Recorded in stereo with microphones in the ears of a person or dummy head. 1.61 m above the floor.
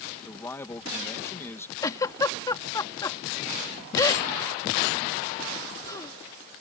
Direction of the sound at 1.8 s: 20° left (ahead or behind).